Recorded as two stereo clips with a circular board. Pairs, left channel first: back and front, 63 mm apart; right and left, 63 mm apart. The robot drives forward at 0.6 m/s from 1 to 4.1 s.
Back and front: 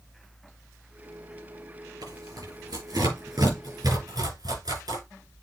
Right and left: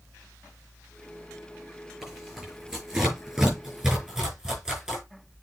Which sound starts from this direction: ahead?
Tearing paper, at 2.0 s.